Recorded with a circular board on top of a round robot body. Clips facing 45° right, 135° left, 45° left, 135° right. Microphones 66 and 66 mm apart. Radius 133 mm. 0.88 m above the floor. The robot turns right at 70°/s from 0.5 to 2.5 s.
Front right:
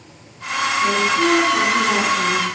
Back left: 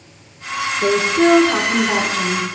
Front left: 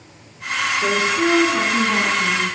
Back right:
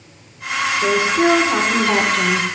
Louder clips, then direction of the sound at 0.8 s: Back left 4 dB, back right 4 dB; 140° left.